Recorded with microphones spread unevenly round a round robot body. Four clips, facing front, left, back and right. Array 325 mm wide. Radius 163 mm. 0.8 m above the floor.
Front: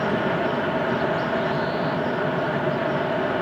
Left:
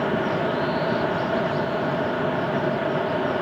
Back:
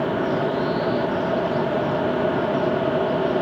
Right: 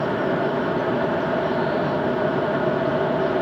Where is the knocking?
I don't hear knocking.